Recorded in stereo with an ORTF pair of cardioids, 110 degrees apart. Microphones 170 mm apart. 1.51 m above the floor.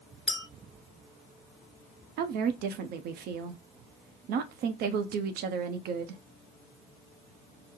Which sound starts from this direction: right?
A woman speaking, at 2.2 s.